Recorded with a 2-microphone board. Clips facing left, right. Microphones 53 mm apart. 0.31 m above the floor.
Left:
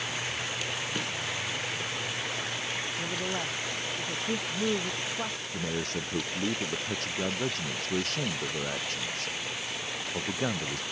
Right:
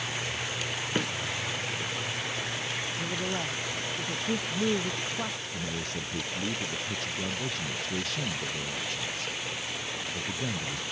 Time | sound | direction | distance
0.9 | a microwave | 40° right (ahead or behind) | ?
3.0 | a man speaking | centre (ahead or behind) | ?
5.5 | a man speaking | 50° left (ahead or behind) | ?